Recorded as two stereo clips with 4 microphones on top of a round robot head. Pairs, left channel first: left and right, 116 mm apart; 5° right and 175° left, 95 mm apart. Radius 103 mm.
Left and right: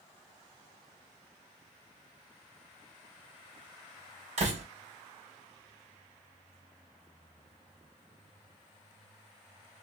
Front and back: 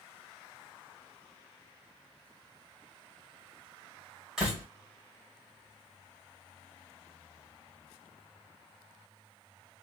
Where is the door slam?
100° right, 1.9 m.